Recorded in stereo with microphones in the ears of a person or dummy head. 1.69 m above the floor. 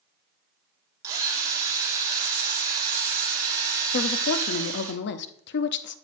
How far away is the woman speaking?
About 0.6 m.